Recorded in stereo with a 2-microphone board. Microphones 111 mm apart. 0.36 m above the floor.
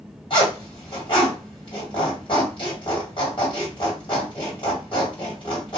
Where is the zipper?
50° left (ahead or behind), 2 m.